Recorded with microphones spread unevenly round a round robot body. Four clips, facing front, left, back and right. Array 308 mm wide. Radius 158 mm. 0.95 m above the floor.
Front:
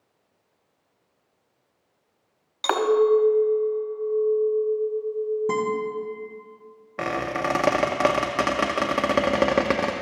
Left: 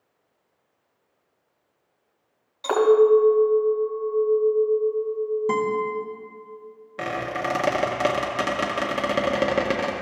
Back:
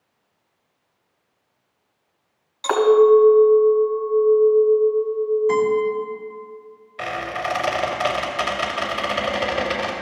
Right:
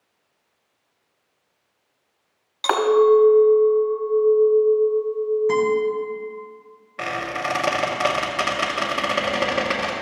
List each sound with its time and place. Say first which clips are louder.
2.6 s a clink: even, back 6 dB; 55° right, 2 m
5.5 s a guitar: right 4 dB, back 6 dB; 40° left, 1.6 m
7.0 s a squeak: right 1 dB, front 1 dB; 15° left, 0.6 m